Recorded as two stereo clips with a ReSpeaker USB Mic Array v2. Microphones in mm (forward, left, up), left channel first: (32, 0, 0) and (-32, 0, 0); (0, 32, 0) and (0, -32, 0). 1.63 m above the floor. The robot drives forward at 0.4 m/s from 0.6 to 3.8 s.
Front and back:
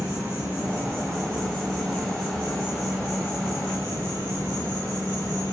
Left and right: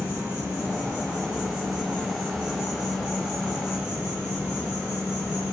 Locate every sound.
0.0 s an insect: 140° right, 1.8 m; by 5.5 s 160° right, 2.5 m